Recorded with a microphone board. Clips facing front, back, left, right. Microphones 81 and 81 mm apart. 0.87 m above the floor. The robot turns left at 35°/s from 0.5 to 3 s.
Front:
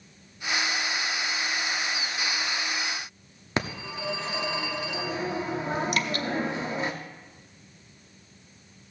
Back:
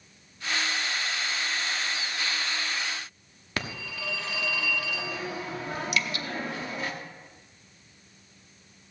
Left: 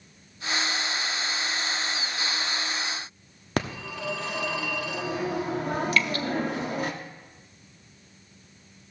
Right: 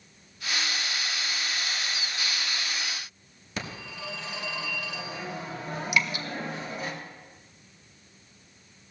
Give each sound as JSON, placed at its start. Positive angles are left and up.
{"t": 3.6, "sound": "a phone ringing", "azimuth_deg": 65, "distance_m": 1.3}
{"t": 5.9, "sound": "dripping", "azimuth_deg": -20, "distance_m": 0.8}